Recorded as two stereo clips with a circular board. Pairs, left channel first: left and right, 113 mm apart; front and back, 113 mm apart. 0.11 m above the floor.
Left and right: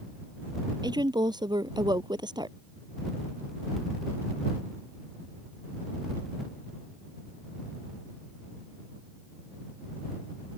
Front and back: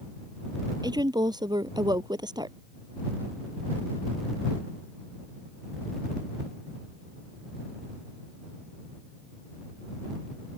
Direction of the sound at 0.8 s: 135° right.